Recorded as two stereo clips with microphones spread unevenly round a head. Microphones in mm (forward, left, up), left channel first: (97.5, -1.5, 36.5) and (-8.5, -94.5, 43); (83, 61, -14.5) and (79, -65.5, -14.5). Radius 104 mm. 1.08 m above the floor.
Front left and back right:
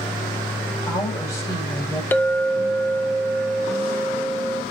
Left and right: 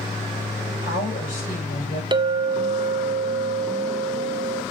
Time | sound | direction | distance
0.7 | a woman speaking | 110° left | 5 m
2.1 | a clink | 35° right | 0.8 m